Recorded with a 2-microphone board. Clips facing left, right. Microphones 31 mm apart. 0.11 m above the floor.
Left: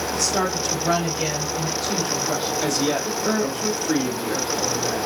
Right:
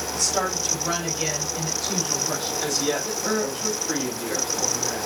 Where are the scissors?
I don't hear scissors.